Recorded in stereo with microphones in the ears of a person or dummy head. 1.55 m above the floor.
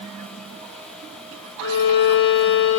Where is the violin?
50° left (ahead or behind), 2.5 m.